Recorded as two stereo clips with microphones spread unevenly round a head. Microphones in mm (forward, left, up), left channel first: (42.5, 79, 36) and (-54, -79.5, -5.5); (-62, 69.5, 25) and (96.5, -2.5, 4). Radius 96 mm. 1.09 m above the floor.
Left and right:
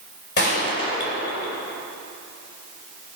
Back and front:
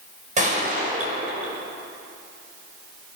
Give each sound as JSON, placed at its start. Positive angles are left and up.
{"t": 0.4, "sound": "a gunshot", "azimuth_deg": 20, "distance_m": 6.5}